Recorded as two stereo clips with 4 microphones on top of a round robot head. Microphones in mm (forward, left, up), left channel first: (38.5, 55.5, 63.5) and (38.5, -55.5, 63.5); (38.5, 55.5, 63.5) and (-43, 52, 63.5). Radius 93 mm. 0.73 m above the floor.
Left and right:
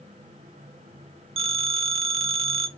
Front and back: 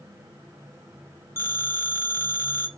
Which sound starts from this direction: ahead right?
A phone ringing, at 1.4 s.